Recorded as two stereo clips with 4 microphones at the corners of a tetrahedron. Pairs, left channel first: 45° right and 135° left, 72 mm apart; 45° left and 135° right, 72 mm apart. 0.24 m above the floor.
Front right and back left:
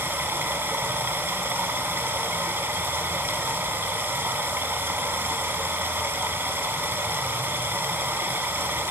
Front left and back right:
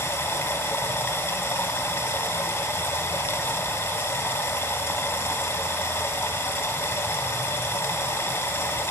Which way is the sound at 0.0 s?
90° left.